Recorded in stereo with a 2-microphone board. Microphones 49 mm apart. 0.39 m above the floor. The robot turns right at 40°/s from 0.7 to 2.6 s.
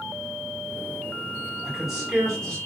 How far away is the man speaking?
About 1.9 m.